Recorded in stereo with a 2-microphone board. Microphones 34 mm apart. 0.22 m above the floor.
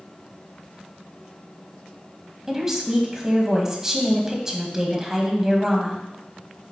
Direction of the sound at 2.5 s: 15° right (ahead or behind).